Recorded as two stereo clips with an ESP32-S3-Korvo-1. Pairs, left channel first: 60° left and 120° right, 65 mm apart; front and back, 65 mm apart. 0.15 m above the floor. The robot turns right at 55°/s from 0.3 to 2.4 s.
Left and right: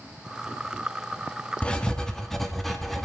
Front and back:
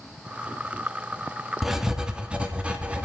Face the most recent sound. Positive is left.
turn(degrees=140)